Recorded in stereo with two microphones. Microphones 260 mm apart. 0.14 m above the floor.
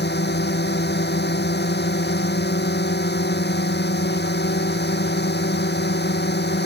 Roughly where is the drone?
Left.